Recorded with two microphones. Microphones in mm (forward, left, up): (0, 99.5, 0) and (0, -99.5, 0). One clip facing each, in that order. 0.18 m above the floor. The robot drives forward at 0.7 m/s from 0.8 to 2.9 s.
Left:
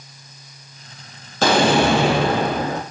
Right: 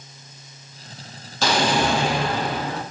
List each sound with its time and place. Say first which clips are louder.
1.4 s an explosion: left 5 dB; 60° left (ahead or behind), 0.9 m; by 2.8 s 55° left (ahead or behind), 1.0 m